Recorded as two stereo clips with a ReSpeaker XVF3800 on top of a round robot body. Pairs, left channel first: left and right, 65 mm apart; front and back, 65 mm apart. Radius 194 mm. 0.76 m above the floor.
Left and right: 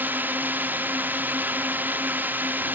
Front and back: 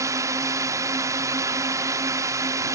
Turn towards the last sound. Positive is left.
turn(degrees=-145)